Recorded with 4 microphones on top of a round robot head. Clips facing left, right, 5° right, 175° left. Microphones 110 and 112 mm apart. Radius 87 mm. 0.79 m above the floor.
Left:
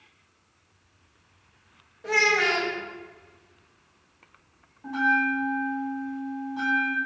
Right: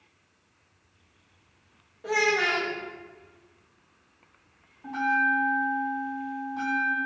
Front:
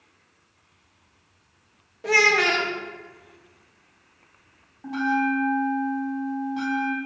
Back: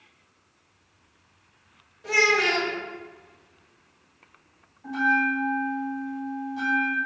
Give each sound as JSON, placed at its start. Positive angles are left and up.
{"t": 2.0, "sound": "a child speaking", "azimuth_deg": -10, "distance_m": 0.6}
{"t": 4.8, "sound": "a bell", "azimuth_deg": 10, "distance_m": 1.5}